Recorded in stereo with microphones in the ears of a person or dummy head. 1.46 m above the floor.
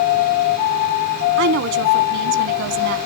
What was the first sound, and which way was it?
A woman speaking, 65° right (ahead or behind).